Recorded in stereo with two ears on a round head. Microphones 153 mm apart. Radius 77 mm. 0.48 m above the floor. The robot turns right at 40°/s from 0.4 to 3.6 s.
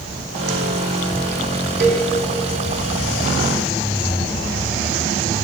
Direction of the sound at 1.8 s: 65° right (ahead or behind).